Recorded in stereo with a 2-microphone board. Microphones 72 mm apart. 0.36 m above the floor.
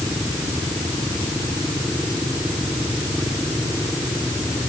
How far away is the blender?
I don't hear a blender.